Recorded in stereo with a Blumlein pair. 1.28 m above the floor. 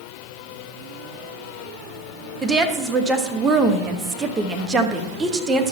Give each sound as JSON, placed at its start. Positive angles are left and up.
{"t": 2.4, "sound": "a woman speaking", "azimuth_deg": -20, "distance_m": 1.3}